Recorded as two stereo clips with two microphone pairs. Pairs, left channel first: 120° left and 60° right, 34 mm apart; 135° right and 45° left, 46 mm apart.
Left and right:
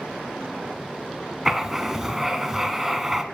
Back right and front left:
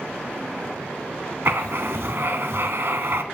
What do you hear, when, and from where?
1.4 s writing: 20° left, 0.5 m